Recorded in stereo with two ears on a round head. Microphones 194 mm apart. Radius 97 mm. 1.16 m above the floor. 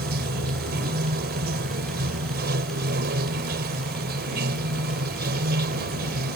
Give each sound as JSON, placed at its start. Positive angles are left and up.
{"t": 0.0, "sound": "running water", "side_deg": -50}